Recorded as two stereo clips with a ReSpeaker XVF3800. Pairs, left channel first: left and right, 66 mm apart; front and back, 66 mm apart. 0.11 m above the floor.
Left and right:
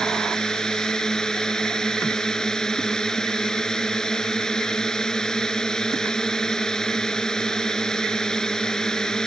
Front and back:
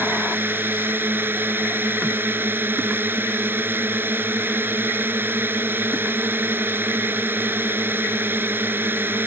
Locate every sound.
0.0 s a drone: 160° left